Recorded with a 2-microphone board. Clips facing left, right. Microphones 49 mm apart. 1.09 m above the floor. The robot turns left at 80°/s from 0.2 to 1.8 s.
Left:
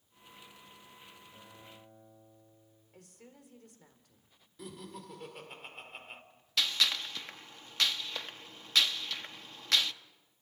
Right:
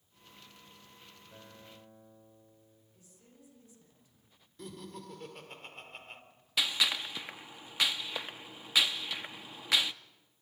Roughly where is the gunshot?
Centre.